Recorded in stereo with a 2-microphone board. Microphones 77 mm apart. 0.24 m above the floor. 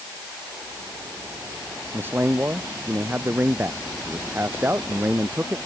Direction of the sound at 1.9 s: 25° right (ahead or behind).